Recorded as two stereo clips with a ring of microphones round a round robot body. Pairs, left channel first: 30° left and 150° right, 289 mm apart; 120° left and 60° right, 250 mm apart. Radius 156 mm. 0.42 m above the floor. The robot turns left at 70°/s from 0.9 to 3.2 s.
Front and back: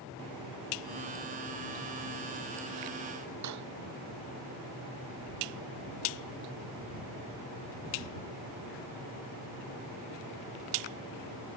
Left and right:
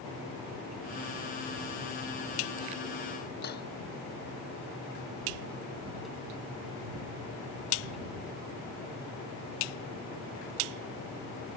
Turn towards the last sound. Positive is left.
turn(degrees=180)